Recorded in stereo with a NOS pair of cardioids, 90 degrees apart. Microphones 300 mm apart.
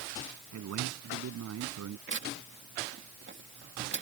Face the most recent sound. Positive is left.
turn(degrees=-40)